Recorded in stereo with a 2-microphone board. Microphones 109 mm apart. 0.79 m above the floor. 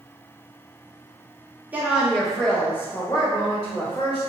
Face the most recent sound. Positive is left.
turn(degrees=45)  # may be behind; listen again after turning